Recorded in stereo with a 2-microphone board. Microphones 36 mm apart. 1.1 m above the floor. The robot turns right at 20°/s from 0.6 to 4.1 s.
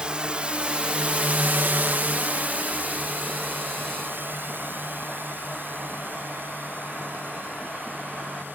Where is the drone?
25° right (ahead or behind); by 8.6 s 65° right (ahead or behind).